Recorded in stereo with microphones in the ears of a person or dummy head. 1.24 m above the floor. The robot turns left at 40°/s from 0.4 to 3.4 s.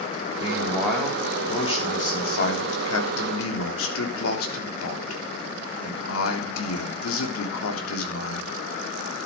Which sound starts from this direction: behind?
A man speaking, at 0.4 s.